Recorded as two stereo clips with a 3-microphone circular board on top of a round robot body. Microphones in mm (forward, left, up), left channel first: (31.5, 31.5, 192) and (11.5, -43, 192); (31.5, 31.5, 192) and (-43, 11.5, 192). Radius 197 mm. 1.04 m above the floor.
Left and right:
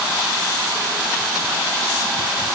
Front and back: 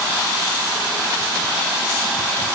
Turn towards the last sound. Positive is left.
No sound to turn to.